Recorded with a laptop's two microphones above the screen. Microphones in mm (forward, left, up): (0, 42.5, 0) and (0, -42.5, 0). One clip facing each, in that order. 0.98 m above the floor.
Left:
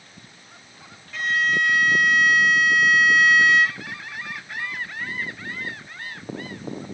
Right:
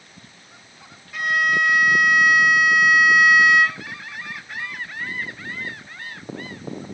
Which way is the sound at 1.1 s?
15° right (ahead or behind).